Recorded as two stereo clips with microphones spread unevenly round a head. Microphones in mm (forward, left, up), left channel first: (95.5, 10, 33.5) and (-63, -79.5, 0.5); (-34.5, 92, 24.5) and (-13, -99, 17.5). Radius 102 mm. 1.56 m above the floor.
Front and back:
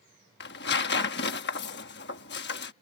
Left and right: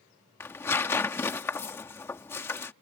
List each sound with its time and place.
0.4 s tearing paper: 20° left